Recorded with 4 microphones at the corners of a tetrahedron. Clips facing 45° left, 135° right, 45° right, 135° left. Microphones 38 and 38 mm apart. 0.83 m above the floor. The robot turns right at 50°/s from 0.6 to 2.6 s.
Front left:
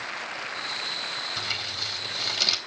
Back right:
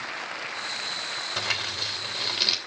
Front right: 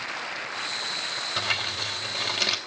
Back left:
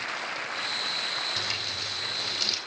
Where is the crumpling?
110° right, 3 m; by 2.6 s 45° right, 3 m.